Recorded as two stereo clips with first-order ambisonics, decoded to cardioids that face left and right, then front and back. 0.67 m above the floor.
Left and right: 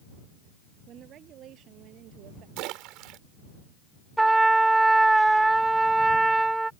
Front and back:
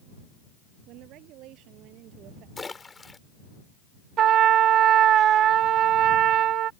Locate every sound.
0.9 s a woman speaking: 145° right; by 2.5 s 135° right
2.6 s a splash: 75° right
4.2 s a trumpet: 165° right